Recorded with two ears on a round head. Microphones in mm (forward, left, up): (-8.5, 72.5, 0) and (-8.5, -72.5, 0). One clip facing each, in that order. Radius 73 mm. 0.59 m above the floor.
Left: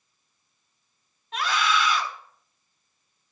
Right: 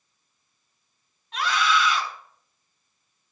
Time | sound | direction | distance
1.3 | a scream | 75° left (ahead or behind) | 4 m